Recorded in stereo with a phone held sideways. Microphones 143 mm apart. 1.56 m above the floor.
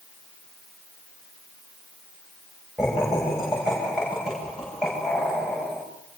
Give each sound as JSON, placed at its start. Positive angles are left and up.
{"t": 2.8, "sound": "laughter", "side_deg": 0, "distance_m": 9.5}